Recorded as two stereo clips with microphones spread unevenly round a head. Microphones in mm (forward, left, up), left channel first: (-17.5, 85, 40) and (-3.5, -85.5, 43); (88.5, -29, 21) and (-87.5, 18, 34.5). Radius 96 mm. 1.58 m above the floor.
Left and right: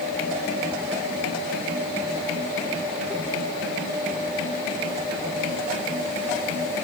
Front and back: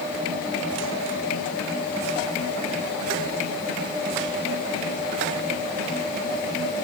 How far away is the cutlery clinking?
I don't hear cutlery clinking.